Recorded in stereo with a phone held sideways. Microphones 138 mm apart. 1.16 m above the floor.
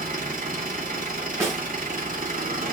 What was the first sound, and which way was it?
An engine running, 85° right.